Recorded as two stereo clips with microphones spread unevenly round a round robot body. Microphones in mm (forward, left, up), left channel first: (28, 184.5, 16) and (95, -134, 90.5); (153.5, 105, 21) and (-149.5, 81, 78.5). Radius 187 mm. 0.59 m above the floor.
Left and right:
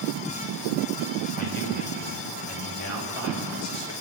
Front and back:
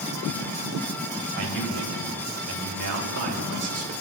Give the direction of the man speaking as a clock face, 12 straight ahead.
7 o'clock.